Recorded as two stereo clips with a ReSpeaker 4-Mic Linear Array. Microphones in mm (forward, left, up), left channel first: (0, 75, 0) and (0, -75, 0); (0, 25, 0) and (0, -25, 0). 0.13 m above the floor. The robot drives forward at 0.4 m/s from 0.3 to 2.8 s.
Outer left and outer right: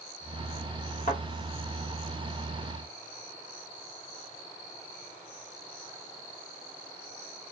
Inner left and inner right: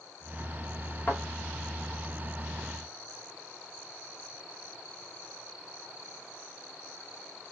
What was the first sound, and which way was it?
A thud, 45° left (ahead or behind).